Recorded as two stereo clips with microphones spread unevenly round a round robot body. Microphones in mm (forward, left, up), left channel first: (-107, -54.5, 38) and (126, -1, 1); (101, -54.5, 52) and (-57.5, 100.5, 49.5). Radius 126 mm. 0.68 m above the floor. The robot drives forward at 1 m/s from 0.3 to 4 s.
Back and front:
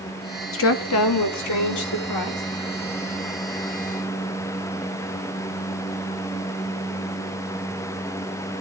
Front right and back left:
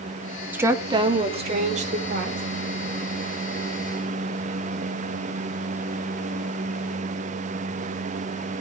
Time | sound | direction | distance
0.5 | a woman speaking | 145° right | 1.1 m